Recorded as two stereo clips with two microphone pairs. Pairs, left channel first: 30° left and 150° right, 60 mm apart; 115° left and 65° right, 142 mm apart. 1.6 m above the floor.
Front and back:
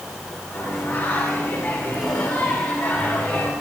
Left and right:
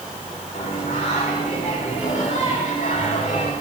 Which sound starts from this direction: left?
Singing, at 0.5 s.